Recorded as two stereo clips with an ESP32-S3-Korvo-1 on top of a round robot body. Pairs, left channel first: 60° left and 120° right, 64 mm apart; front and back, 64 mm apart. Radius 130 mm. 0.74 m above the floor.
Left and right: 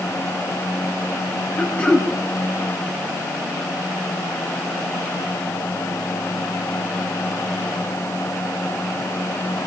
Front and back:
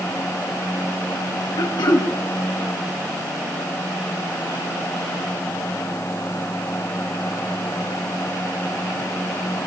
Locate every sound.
1.6 s throat clearing: 10° right, 2.5 m